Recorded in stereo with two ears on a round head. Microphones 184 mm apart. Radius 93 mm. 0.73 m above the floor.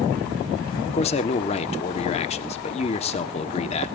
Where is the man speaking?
30° left (ahead or behind), 1.2 m.